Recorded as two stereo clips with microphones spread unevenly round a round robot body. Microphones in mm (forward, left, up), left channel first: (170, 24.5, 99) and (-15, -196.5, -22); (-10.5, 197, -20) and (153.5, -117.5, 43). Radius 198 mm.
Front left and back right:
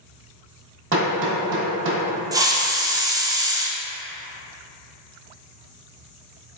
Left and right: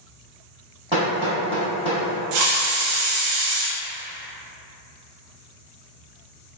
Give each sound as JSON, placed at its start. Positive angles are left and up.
{"t": 0.9, "sound": "hammering", "azimuth_deg": -145, "distance_m": 0.8}
{"t": 2.3, "sound": "a hiss", "azimuth_deg": -50, "distance_m": 0.6}